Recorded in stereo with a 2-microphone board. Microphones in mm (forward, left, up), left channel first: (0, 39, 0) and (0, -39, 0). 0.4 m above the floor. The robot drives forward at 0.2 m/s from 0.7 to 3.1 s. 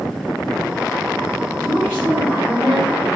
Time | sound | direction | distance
1.6 | a woman speaking | 25° left (ahead or behind) | 1.2 m